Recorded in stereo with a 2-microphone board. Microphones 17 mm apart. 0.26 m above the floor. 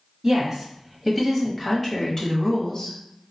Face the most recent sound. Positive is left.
turn(degrees=40)  # may be behind; listen again after turning